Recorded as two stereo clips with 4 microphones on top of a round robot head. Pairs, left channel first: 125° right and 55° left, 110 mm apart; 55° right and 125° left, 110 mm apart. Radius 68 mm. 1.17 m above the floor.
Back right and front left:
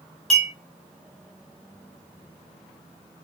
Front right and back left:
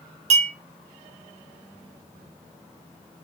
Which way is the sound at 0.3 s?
155° left.